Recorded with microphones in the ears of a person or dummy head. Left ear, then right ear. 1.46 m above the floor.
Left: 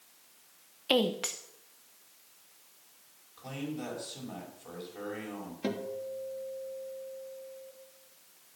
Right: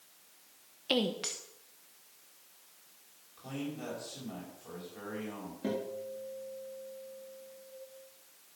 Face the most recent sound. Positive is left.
turn(degrees=45)  # may be behind; listen again after turning